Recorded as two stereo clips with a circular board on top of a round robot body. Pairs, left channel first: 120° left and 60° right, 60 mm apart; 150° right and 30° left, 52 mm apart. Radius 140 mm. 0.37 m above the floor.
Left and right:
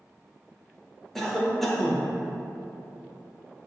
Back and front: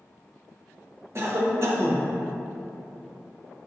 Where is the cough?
35° left, 1.6 m.